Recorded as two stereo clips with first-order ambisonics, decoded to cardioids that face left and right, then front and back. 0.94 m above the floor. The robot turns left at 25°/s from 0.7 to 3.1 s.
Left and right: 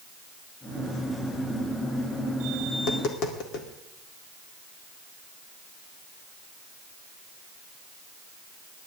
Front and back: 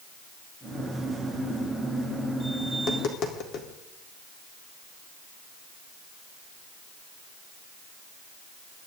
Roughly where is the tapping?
Ahead left.